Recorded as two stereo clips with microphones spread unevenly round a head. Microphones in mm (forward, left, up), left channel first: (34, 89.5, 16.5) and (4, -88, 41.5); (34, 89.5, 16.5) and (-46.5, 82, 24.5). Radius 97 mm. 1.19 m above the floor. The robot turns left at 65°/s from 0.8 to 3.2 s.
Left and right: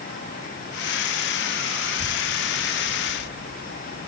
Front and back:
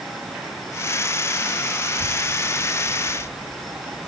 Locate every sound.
1.8 s a child speaking: 140° right; by 4.1 s 130° left